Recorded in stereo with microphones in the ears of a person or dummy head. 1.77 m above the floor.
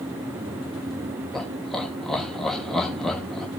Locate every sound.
1.3 s laughter: 5° left (ahead or behind), 3.5 m